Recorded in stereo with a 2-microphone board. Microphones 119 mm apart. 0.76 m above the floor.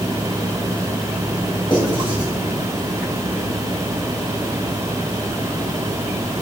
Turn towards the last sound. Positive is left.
turn(degrees=40)  # may be behind; listen again after turning